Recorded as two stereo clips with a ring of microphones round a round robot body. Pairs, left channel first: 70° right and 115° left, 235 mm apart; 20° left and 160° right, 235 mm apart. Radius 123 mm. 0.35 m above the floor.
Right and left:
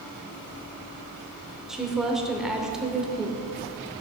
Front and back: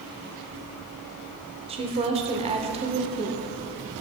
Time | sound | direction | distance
1.7 | a woman speaking | 165° right | 0.9 m